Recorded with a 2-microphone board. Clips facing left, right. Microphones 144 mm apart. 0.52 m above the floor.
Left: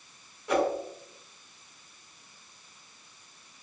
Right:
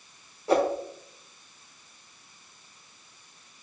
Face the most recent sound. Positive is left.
turn(degrees=-35)  # may be behind; listen again after turning